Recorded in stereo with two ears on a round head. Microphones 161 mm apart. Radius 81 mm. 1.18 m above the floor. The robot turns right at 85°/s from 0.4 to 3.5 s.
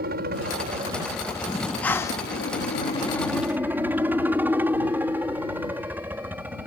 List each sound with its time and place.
0.0 s a helicopter: 70° right; by 6.7 s 170° right
1.5 s breathing: 5° right (ahead or behind); by 2.3 s 20° left (ahead or behind)